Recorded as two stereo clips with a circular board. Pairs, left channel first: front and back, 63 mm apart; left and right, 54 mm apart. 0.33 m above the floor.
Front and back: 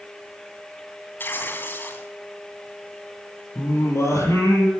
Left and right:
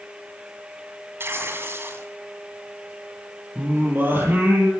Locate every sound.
1.2 s tearing paper: 55° right, 2.5 m
3.5 s singing: 35° right, 8.5 m